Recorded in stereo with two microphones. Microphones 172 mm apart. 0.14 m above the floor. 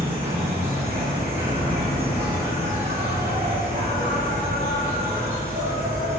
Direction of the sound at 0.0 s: 65° right (ahead or behind).